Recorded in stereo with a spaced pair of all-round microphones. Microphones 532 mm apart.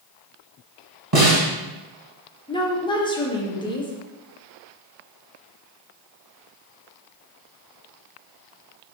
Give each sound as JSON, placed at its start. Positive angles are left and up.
{"t": 1.1, "sound": "a snare drum", "side_deg": -40, "distance_m": 1.7}
{"t": 2.5, "sound": "a woman speaking", "side_deg": 10, "distance_m": 0.9}